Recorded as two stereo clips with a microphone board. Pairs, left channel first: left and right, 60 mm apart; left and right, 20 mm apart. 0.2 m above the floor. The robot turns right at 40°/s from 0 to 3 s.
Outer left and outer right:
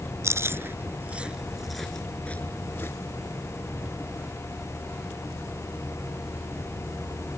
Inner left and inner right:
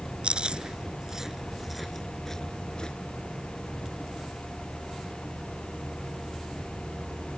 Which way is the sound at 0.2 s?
50° right (ahead or behind).